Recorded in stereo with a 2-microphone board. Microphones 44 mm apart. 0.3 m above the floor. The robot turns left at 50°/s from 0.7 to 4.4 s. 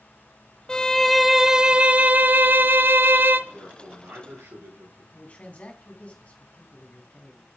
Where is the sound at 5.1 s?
30° left (ahead or behind), 2.5 m.